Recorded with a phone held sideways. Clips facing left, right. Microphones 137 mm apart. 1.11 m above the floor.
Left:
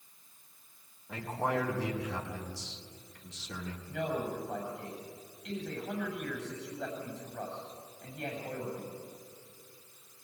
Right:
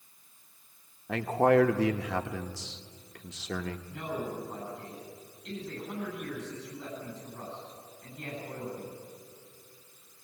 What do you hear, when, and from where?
1.1 s a man speaking: 75° right (ahead or behind), 1.3 m
3.9 s a man speaking: 80° left, 8.5 m